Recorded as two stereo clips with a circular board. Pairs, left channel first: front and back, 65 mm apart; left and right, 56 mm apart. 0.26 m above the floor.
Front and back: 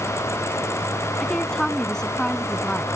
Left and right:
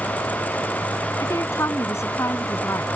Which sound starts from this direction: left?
A woman speaking, at 1.2 s.